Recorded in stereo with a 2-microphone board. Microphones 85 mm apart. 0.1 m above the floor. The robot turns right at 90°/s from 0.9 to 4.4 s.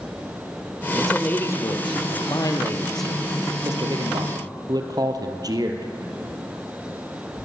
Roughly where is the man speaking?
Ahead.